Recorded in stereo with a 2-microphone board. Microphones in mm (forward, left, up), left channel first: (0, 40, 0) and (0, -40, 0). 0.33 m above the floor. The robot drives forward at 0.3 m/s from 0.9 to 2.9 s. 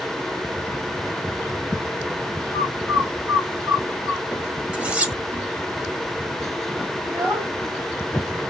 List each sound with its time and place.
2.5 s a bird: 40° right (ahead or behind), 1.2 m
4.7 s cutlery clinking: 15° right (ahead or behind), 0.8 m
7.0 s a child speaking: 30° right (ahead or behind), 1.2 m